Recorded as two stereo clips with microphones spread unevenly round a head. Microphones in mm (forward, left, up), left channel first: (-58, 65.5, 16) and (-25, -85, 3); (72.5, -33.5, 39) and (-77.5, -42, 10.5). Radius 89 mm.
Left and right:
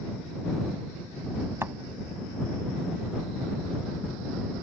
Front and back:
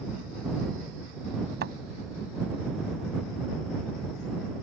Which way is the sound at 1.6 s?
155° right.